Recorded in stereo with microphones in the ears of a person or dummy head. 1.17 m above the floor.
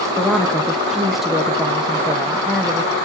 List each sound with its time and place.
0.2 s a woman speaking: centre (ahead or behind), 0.7 m